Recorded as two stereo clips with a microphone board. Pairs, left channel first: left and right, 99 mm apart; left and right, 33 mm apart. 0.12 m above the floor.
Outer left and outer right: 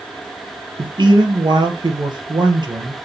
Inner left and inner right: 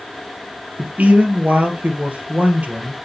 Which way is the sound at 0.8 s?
55° right (ahead or behind).